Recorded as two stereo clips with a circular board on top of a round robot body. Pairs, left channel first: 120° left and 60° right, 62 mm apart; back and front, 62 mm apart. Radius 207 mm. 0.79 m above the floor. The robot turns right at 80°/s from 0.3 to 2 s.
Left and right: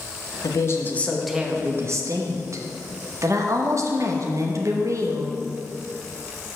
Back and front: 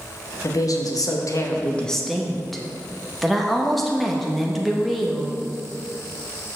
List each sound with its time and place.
0.4 s a woman speaking: 145° left, 1.1 m; by 5.3 s 90° right, 1.1 m